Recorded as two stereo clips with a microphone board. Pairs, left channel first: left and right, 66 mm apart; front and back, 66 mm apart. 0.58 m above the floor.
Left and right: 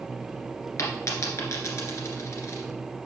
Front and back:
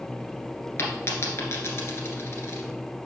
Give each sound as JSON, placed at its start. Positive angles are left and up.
{"t": 0.8, "sound": "a dropped coin", "azimuth_deg": 50, "distance_m": 1.6}